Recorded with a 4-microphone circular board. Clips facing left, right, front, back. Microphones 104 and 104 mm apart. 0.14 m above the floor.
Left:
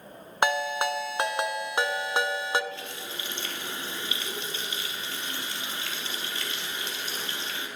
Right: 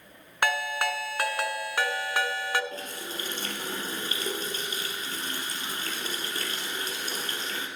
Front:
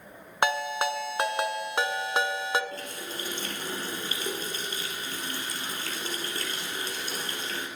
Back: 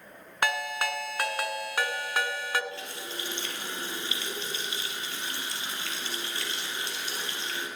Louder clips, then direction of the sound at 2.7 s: Right 1 dB, front 1 dB; 45° right.